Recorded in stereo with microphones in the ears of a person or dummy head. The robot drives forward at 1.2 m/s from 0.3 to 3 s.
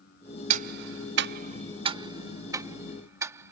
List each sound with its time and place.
0.5 s ticking: 45° right (ahead or behind); by 3.5 s 15° right (ahead or behind)